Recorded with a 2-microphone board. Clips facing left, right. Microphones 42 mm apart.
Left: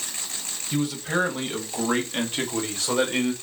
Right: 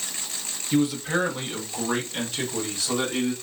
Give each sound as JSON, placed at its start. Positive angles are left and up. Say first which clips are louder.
{"t": 0.7, "sound": "a man speaking", "louder": "right 2 dB", "side_deg": -10, "distance_m": 1.2}